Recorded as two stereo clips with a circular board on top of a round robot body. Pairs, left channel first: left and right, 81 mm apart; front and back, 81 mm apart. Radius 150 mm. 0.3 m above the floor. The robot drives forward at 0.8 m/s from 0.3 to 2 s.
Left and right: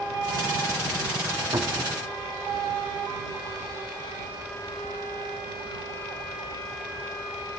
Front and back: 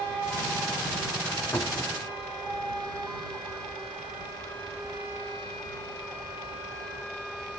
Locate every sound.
1.5 s a cupboard door: 60° right, 1.1 m; by 2.0 s 90° right, 1.0 m